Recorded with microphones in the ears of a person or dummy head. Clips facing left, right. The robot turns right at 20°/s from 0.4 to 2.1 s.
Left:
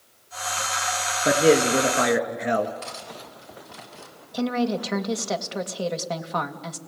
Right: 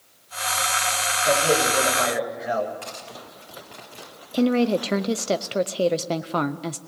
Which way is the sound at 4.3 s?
40° right (ahead or behind).